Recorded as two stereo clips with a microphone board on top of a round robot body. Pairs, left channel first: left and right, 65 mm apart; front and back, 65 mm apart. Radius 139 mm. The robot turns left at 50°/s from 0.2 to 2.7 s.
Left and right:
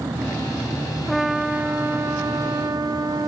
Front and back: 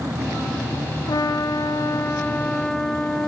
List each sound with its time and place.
1.1 s a trumpet: straight ahead, 1.3 m; by 3.3 s 80° right, 1.3 m